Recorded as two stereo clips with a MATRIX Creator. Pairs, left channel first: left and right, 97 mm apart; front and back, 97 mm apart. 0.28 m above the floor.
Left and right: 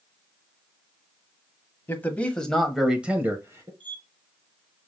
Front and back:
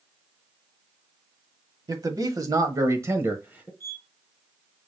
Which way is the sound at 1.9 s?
150° left.